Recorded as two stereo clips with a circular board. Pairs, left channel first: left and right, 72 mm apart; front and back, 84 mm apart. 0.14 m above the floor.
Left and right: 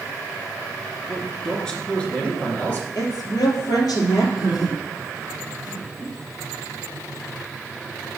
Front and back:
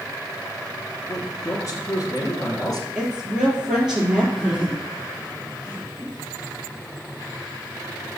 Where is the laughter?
95° left, 5 m.